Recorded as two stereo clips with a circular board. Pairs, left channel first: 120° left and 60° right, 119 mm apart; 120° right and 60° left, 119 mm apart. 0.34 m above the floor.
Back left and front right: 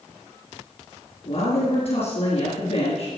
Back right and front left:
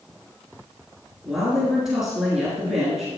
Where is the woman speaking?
145° left, 4.5 m.